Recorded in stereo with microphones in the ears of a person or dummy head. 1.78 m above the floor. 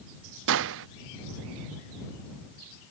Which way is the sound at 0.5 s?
65° right (ahead or behind).